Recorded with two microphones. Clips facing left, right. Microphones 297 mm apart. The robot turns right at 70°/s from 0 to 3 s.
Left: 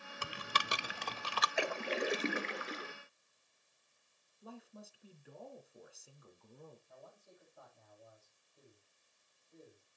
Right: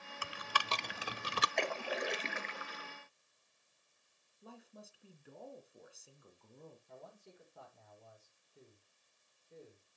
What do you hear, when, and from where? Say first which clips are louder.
0.2 s typing on a keyboard: left 1 dB; 45° left (ahead or behind), 0.5 m; by 1.5 s 35° right (ahead or behind), 0.5 m
1.6 s a splash: left 2 dB; 5° left, 0.7 m; by 2.9 s 100° left, 0.7 m
4.4 s a man speaking: left 3 dB; centre (ahead or behind), 2 m
6.9 s a man speaking: right 3 dB; 75° right (ahead or behind), 5.5 m